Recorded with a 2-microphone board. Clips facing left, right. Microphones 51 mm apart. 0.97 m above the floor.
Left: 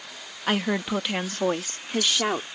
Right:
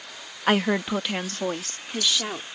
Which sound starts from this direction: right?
A woman speaking, at 0.5 s.